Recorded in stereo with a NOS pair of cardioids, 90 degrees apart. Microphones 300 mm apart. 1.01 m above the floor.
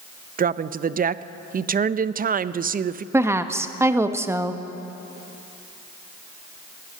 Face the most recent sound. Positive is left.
turn(degrees=-10)